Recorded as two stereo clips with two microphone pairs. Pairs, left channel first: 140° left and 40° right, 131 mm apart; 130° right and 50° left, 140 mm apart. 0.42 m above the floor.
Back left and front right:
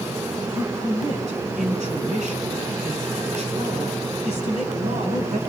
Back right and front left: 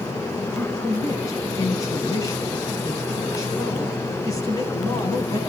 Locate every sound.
0.5 s a man speaking: 65° right, 5 m